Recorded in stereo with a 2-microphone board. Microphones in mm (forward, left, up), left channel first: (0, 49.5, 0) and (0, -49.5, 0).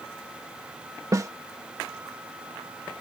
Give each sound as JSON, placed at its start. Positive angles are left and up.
{"t": 1.1, "sound": "a snare drum", "side_deg": -35}